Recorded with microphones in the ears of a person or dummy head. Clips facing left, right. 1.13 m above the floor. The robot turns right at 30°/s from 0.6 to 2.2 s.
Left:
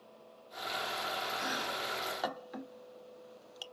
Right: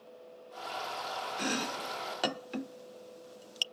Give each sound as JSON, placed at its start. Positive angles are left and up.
{"t": 1.4, "sound": "chopping", "side_deg": -35, "distance_m": 0.6}